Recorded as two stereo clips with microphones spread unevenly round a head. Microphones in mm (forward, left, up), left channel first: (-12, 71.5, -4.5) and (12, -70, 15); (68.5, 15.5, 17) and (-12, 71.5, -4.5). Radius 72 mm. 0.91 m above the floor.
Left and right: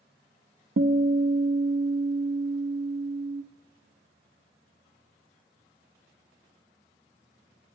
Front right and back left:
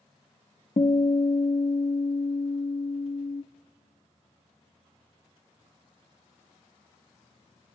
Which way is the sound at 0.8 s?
75° right.